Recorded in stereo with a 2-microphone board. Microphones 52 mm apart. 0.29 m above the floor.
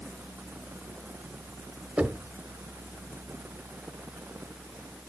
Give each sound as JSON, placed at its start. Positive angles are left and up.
{"t": 2.0, "sound": "knocking", "side_deg": -20, "distance_m": 1.0}